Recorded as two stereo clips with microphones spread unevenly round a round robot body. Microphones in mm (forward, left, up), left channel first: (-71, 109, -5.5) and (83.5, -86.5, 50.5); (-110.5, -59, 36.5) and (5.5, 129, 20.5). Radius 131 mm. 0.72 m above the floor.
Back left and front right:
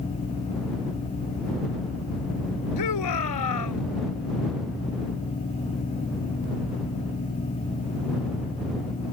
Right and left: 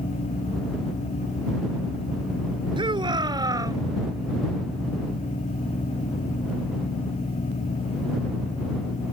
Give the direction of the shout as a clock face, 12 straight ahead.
8 o'clock.